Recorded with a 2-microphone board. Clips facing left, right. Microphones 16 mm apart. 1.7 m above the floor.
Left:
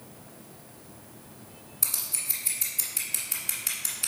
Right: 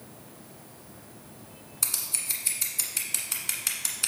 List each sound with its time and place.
1.8 s scissors: 10° right (ahead or behind), 1.3 m